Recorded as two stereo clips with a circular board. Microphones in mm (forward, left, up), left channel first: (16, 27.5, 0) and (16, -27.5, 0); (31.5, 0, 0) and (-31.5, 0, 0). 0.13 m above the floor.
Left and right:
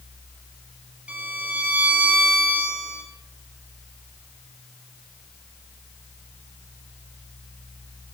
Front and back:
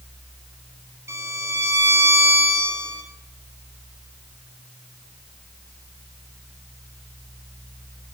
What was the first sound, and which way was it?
A violin, 150° right.